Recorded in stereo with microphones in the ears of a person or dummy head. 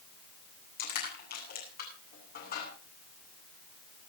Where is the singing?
I don't hear singing.